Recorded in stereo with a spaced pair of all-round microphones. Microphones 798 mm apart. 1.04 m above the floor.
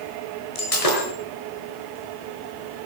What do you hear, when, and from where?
0.6 s breaking glass: 45° left (ahead or behind), 5.5 m